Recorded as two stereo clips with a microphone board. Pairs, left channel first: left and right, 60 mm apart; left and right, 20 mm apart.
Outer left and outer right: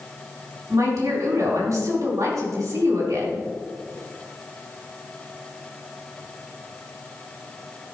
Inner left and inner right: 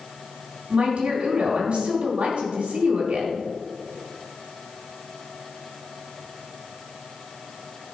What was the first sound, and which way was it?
A woman speaking, 55° right (ahead or behind).